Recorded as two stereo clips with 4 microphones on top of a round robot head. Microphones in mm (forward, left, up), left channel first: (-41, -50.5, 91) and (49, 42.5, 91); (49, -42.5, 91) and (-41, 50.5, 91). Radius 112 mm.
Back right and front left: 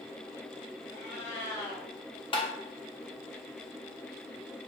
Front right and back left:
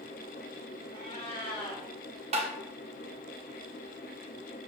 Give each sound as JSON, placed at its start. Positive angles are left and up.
{"t": 0.9, "sound": "a cat meowing", "azimuth_deg": -95, "distance_m": 1.8}
{"t": 2.3, "sound": "tapping", "azimuth_deg": 175, "distance_m": 0.9}